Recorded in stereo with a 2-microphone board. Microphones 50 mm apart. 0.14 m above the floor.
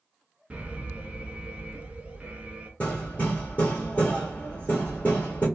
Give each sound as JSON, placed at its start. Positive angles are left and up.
{"t": 0.5, "sound": "an alarm", "side_deg": -25, "distance_m": 0.9}
{"t": 2.8, "sound": "hammering", "side_deg": 30, "distance_m": 1.9}